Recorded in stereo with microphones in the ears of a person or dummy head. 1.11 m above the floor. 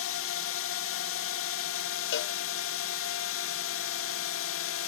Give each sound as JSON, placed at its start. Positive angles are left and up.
{"t": 0.0, "sound": "a drone", "side_deg": 60}
{"t": 2.1, "sound": "a cowbell", "side_deg": 55}